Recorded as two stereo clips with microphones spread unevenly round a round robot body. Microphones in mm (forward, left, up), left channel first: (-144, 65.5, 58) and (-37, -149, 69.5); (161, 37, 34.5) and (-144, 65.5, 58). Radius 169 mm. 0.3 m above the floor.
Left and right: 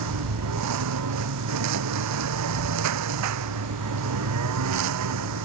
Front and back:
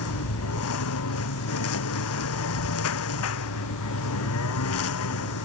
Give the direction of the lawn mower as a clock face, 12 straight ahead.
2 o'clock.